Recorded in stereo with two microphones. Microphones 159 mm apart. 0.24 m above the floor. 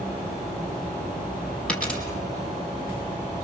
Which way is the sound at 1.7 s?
5° left (ahead or behind).